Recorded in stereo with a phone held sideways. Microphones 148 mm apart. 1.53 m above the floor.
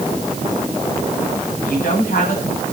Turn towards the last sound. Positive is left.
turn(degrees=70)  # may be behind; listen again after turning